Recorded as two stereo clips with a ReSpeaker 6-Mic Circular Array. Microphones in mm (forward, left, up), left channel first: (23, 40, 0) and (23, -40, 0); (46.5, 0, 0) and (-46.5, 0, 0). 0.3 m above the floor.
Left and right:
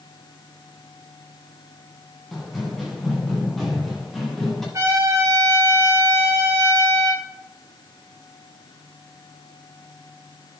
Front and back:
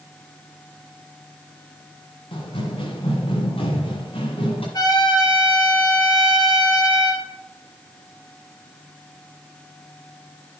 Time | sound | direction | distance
2.3 | running footsteps | straight ahead | 4.5 m
4.7 | a trumpet | 40° right | 4.5 m